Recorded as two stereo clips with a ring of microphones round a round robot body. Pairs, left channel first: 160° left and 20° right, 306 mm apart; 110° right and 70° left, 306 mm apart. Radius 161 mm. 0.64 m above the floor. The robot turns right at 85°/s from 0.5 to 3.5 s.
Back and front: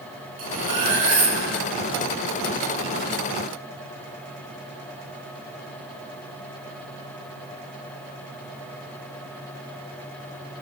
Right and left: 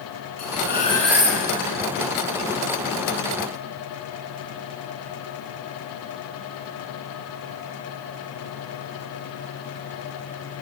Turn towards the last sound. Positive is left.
turn(degrees=-175)